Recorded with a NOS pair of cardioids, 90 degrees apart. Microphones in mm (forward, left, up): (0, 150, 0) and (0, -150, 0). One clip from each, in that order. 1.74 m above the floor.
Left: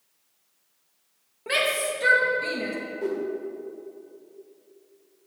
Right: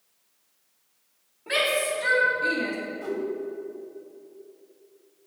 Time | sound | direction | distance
1.5 | a shout | 55° left | 3 m
3.0 | a whoosh | 5° left | 1.6 m